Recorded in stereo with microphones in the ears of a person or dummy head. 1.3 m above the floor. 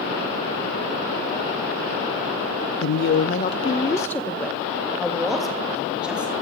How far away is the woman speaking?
About 0.6 m.